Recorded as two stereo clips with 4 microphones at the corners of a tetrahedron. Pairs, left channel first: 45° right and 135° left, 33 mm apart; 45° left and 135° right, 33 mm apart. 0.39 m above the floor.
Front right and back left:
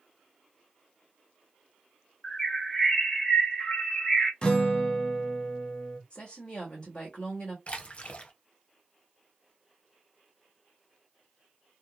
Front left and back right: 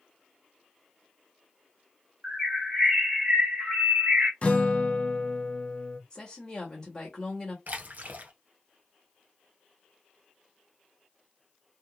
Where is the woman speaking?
15° right, 1.0 m.